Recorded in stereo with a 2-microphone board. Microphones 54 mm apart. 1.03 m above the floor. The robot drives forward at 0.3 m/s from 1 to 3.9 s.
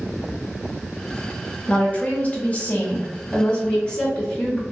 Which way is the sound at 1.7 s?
35° left (ahead or behind).